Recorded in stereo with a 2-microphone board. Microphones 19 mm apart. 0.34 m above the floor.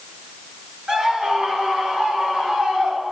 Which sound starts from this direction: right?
A scream, at 0.9 s.